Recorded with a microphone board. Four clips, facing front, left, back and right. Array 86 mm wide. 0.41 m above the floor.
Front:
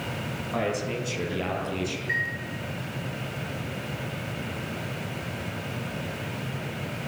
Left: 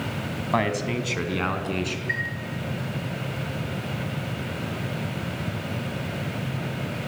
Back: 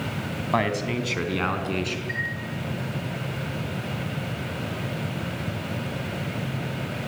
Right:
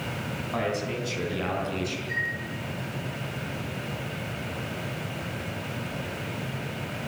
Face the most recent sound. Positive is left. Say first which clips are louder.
# left 2 dB, front 1 dB
turn(degrees=80)